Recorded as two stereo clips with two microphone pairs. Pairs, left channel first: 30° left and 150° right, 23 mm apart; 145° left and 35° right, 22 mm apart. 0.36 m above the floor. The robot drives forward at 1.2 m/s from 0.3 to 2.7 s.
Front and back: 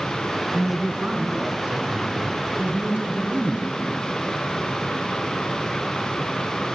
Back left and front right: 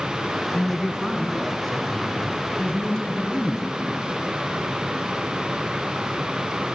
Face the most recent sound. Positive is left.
turn(degrees=-150)